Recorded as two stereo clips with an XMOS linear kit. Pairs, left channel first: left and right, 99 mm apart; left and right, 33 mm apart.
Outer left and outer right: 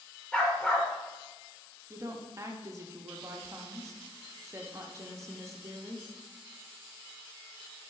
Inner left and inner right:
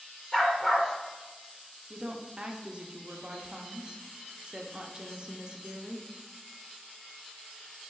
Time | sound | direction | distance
0.3 | a dog barking | 10° left (ahead or behind) | 0.8 m
1.9 | a woman speaking | 30° right (ahead or behind) | 0.6 m